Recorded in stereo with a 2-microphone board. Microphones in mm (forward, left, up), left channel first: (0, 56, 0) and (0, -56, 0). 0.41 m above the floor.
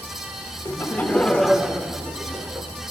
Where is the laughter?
25° left (ahead or behind), 1.0 m; by 2.7 s 30° right (ahead or behind), 1.1 m.